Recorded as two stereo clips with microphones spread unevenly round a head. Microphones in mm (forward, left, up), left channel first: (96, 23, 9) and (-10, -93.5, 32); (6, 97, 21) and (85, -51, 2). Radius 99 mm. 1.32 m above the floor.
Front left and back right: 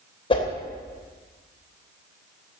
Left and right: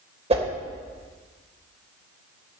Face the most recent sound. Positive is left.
turn(degrees=-10)